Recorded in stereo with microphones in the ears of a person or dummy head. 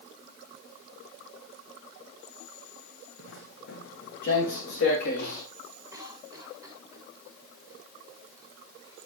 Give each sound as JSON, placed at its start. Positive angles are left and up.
{"t": 3.2, "sound": "footsteps", "side_deg": 60, "distance_m": 4.0}
{"t": 5.9, "sound": "a cough", "side_deg": -10, "distance_m": 7.0}